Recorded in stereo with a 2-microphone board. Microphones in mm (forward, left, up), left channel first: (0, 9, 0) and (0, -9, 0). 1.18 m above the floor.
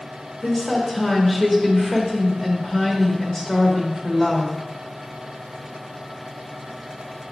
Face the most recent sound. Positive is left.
turn(degrees=25)  # may be behind; listen again after turning